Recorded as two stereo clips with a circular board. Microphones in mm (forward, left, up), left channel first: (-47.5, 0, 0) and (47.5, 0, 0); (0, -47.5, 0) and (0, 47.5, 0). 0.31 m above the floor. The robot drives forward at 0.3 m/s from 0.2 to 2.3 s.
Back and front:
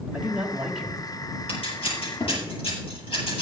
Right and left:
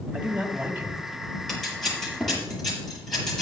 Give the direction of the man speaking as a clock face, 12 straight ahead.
10 o'clock.